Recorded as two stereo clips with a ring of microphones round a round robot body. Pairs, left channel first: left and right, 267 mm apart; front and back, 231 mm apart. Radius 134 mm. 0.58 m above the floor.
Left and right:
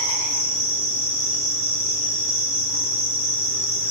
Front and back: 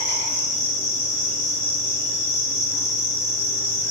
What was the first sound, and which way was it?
An insect, 20° left.